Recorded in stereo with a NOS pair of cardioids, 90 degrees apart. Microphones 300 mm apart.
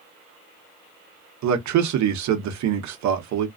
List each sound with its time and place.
1.4 s a man speaking: 70° right, 1.0 m